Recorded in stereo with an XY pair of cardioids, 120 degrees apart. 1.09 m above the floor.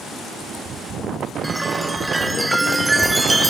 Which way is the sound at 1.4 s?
15° right.